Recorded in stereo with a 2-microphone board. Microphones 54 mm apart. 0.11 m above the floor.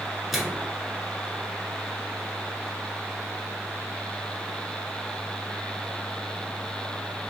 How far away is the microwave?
About 0.9 m.